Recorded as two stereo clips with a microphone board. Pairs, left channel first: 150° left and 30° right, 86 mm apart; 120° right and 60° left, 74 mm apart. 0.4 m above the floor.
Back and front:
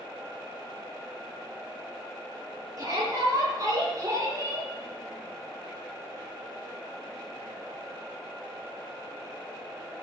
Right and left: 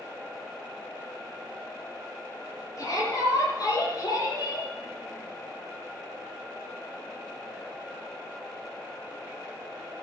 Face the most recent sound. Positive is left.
turn(degrees=-85)